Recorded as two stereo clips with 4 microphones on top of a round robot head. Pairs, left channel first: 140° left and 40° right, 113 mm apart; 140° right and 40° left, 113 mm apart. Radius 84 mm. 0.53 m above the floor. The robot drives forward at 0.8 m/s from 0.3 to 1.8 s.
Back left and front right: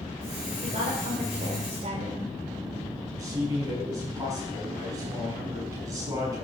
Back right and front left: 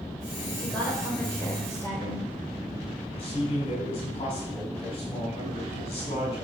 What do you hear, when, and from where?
0.6 s a woman speaking: 55° right, 3 m; by 2.3 s 75° right, 2.5 m
3.2 s a man speaking: 100° right, 6 m